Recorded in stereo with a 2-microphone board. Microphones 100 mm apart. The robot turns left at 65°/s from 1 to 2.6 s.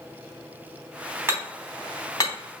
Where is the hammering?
25° right (ahead or behind), 3.5 m; by 2.3 s 40° left (ahead or behind), 3.5 m.